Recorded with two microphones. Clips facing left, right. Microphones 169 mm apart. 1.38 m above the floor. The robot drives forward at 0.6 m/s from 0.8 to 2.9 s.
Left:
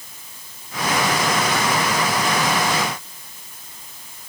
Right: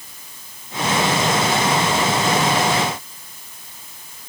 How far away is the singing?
No singing in this recording.